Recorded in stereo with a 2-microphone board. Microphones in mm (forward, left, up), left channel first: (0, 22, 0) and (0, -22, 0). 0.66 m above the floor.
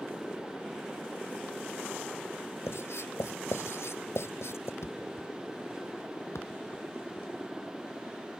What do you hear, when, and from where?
2.7 s writing: 70° left (ahead or behind)
4.8 s a thud: 80° left